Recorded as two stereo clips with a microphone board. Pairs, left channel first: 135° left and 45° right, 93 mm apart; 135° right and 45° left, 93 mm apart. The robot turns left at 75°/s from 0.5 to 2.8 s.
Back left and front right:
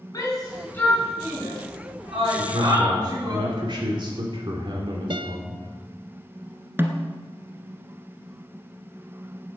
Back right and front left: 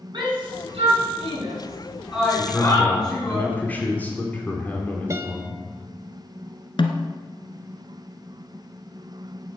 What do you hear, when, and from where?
0.1 s a shout: 85° left, 7.5 m; by 3.4 s 90° right, 7.5 m
2.4 s a man speaking: 35° right, 2.5 m; by 5.6 s 65° right, 2.5 m
5.1 s a guitar: 15° right, 1.1 m
6.8 s a snare drum: 110° right, 1.4 m